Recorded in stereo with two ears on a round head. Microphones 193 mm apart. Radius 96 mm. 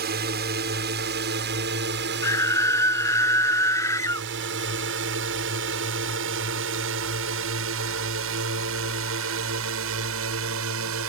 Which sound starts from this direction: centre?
A scream, at 2.2 s.